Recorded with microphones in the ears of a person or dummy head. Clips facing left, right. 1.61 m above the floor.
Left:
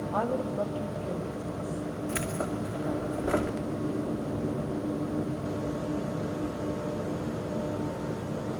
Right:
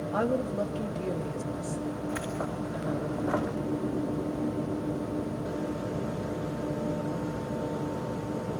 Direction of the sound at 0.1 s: 25° right (ahead or behind).